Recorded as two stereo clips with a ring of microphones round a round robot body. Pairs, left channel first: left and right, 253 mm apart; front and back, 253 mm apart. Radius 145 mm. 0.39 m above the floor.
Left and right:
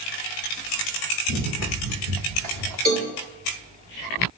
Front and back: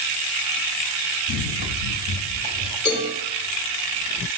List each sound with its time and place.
1.3 s running footsteps: 45° right, 2.5 m; by 2.8 s 75° right, 3.5 m
2.9 s a cowbell: 85° right, 7.5 m